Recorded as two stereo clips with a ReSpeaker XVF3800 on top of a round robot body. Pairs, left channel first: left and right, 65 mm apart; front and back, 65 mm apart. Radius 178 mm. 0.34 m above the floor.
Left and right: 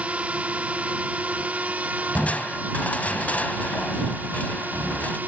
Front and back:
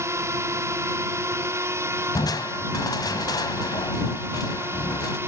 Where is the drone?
150° right; by 5.3 s 140° right.